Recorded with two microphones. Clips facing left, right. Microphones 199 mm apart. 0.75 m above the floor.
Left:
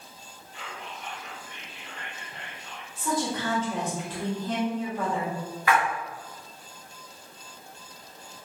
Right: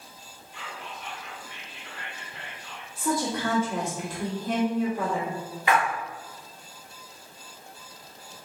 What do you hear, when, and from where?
0.5 s whispering: 45° left (ahead or behind), 2.0 m
3.0 s a woman speaking: 10° right (ahead or behind), 1.5 m
5.7 s a splash: 20° right (ahead or behind), 0.9 m